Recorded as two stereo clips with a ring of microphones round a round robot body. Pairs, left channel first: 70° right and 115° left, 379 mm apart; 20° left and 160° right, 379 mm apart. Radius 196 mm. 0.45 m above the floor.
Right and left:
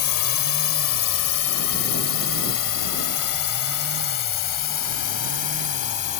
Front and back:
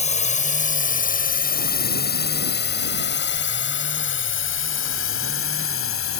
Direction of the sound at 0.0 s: 45° right.